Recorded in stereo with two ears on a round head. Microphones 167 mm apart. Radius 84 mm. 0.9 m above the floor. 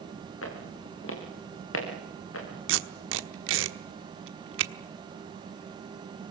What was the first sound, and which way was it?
Footsteps, 80° left.